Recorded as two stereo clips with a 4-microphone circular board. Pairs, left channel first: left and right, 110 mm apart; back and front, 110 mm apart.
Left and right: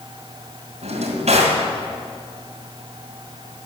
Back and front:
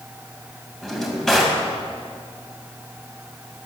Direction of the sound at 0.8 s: 90° right.